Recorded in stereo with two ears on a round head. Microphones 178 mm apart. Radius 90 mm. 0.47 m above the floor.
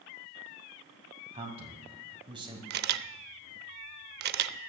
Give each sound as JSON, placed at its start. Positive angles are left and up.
{"t": 1.3, "sound": "a man speaking", "side_deg": -30, "distance_m": 2.5}
{"t": 2.7, "sound": "a camera shutter", "side_deg": -50, "distance_m": 0.5}